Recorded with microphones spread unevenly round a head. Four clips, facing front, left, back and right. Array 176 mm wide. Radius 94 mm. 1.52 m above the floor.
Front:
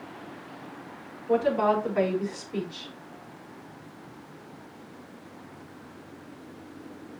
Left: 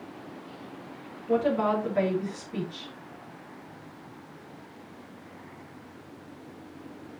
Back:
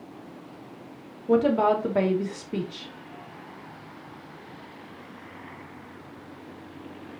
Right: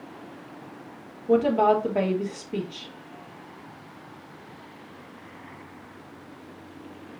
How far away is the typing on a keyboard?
I don't hear typing on a keyboard.